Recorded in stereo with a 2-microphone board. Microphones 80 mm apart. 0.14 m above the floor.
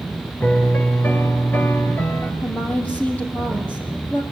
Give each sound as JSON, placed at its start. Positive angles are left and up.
{"t": 0.4, "sound": "a piano", "side_deg": 25, "distance_m": 2.5}
{"t": 2.4, "sound": "a woman speaking", "side_deg": 20, "distance_m": 5.0}